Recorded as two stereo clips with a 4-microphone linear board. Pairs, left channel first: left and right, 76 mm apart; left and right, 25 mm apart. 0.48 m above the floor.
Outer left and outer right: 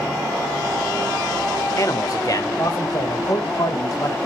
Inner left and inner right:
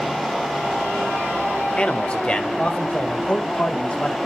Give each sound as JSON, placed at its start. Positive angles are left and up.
{"t": 1.8, "sound": "a man speaking", "side_deg": 50, "distance_m": 1.1}